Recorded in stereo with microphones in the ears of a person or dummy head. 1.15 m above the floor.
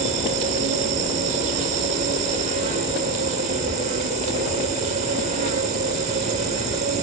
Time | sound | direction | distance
0.0 | an insect | 35° right (ahead or behind) | ?